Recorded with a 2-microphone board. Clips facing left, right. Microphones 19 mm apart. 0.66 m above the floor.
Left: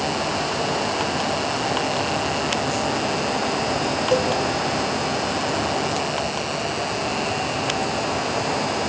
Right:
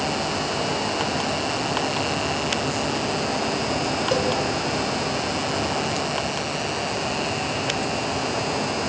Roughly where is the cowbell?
Centre.